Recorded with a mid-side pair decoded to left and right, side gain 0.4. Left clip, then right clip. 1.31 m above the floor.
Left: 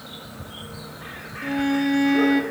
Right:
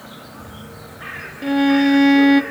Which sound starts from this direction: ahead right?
A violin, at 1.4 s.